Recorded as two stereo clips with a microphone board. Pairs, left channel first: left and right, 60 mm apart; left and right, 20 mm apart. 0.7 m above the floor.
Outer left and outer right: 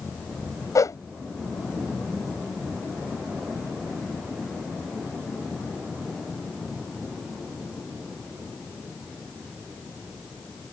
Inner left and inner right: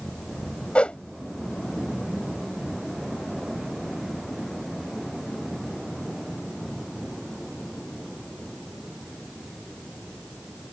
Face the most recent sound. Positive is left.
turn(degrees=65)  # may be behind; listen again after turning